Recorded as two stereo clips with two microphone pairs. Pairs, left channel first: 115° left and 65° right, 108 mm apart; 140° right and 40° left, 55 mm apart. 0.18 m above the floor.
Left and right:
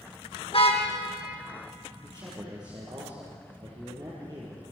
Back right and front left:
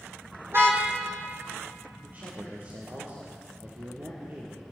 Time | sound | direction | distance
0.5 | a car horn | 85° left | 4 m
2.0 | a man speaking | 15° right | 6 m